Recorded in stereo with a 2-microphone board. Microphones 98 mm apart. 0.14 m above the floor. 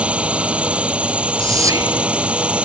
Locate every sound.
0.0 s a drone: 10° right (ahead or behind)
1.4 s whispering: 35° right (ahead or behind)